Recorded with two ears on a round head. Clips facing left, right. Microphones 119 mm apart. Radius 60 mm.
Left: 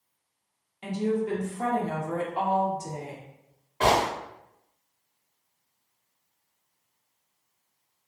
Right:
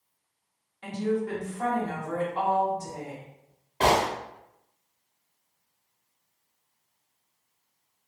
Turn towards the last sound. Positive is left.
turn(degrees=-25)  # may be behind; listen again after turning